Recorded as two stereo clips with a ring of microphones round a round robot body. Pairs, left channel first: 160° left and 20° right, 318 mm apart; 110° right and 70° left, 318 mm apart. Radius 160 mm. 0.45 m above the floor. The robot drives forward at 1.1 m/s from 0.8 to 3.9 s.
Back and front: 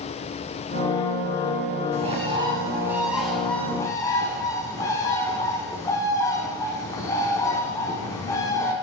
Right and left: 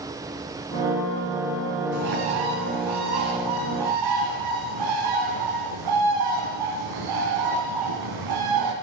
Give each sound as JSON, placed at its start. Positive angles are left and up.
{"t": 1.9, "sound": "a bird", "azimuth_deg": 50, "distance_m": 4.5}